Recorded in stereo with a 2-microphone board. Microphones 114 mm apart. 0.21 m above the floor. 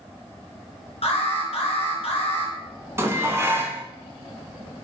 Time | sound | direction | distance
1.0 | an alarm | 70° left (ahead or behind) | 2 m
3.0 | dishes clattering | 25° right (ahead or behind) | 1.3 m